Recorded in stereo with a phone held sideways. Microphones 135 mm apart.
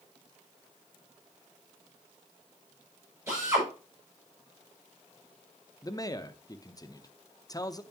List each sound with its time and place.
3.3 s a drill: 20° right (ahead or behind), 7 m
5.8 s a man speaking: 25° left (ahead or behind), 0.7 m